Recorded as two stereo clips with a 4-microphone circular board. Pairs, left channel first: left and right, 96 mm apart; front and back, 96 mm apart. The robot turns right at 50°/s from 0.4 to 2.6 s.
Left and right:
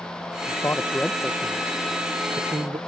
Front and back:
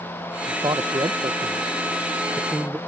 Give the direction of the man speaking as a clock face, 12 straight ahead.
7 o'clock.